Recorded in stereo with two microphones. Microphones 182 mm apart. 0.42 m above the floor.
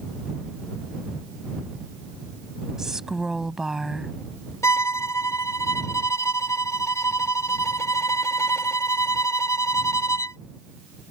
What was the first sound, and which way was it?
A woman speaking, 5° right (ahead or behind).